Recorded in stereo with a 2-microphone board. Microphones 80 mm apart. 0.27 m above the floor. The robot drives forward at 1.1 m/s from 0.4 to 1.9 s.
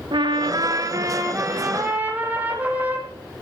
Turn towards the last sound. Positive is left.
turn(degrees=-20)  # may be behind; listen again after turning